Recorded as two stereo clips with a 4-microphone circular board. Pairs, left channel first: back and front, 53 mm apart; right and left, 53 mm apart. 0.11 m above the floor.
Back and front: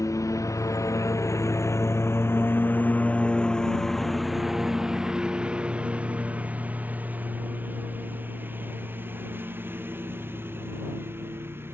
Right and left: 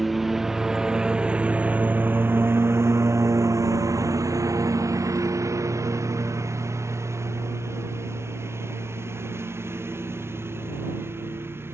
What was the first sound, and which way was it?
A lawn mower, 175° left.